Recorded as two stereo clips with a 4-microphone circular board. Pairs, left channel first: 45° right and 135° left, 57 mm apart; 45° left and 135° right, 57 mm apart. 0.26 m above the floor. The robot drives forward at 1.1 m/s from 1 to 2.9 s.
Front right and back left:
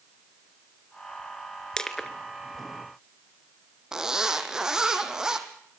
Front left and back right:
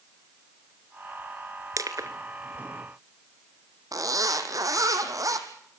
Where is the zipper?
150° right, 2.5 m.